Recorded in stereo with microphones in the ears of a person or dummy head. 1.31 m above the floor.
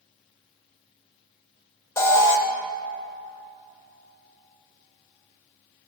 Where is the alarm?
15° left (ahead or behind), 0.7 m.